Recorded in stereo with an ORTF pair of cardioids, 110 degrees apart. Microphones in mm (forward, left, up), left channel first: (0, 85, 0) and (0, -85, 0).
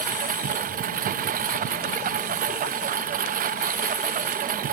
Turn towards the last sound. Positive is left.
turn(degrees=-55)